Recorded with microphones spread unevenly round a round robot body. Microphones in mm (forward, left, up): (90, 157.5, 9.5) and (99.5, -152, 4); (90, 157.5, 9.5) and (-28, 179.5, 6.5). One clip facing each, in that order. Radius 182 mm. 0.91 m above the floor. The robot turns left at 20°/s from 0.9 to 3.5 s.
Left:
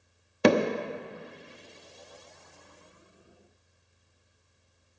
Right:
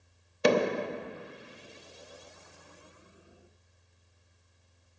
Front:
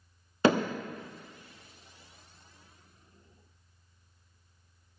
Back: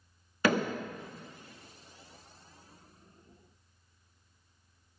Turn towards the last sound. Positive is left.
turn(degrees=5)